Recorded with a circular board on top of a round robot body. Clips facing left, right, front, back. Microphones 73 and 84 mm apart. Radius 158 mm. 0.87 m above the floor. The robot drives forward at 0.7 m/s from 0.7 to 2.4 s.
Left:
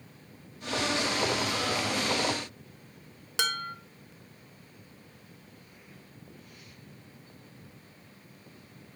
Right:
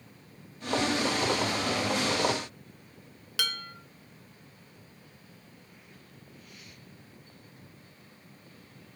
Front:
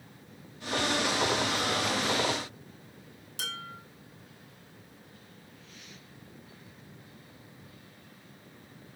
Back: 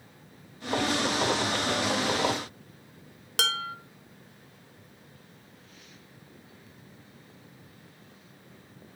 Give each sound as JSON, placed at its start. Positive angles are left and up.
{"t": 3.4, "sound": "dishes clattering", "azimuth_deg": 155, "distance_m": 0.6}